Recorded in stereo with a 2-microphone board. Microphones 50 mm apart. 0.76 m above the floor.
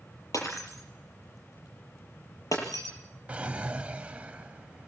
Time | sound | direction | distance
0.3 | breaking glass | 90° left | 8.5 m
3.3 | a drawer | 25° right (ahead or behind) | 1.2 m